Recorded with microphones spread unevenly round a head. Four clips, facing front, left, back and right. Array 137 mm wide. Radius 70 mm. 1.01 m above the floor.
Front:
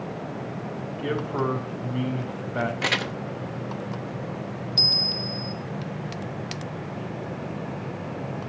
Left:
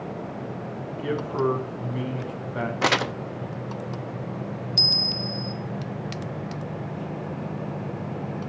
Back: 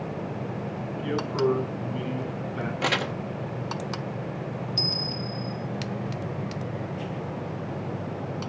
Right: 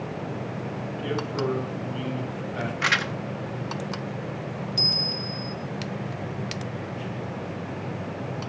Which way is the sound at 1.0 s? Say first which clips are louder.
Left 3 dB, back 1 dB; 5° left.